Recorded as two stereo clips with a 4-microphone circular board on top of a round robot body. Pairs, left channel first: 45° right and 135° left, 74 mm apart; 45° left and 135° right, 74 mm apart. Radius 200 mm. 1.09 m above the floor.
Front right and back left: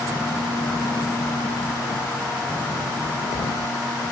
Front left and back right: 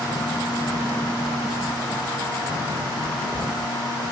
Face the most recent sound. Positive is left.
No sound to turn to.